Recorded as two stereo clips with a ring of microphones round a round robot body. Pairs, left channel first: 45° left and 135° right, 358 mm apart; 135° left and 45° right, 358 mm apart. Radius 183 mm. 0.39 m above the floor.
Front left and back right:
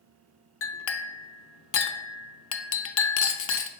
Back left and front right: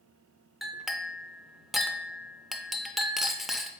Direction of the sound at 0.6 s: 45° left.